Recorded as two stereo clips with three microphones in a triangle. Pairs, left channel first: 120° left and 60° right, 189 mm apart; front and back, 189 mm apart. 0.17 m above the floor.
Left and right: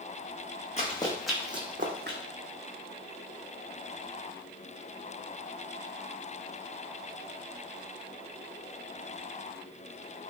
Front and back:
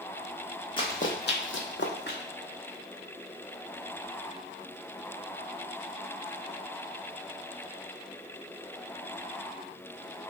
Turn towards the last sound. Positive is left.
turn(degrees=-35)